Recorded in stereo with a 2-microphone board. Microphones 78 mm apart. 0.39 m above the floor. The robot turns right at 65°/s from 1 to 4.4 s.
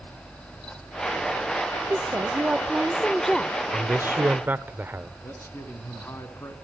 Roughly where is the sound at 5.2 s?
Left.